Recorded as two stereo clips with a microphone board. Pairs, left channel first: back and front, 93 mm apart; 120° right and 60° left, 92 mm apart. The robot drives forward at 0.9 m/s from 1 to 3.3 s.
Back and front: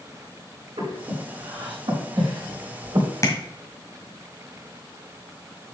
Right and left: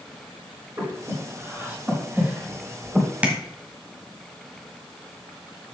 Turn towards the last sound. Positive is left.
turn(degrees=135)